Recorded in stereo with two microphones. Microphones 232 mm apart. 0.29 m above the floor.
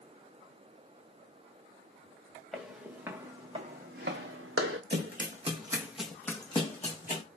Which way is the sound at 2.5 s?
Centre (ahead or behind).